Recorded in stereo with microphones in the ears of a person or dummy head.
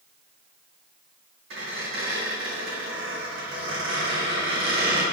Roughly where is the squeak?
Right.